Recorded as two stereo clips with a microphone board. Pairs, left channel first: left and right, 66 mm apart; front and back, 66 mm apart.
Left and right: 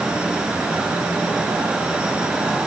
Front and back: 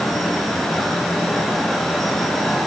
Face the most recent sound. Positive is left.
No sound to turn to.